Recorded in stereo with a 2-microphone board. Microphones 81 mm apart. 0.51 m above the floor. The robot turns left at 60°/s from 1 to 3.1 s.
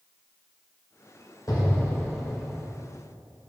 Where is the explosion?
65° left, 2.5 m; by 2.7 s 10° right, 2.5 m.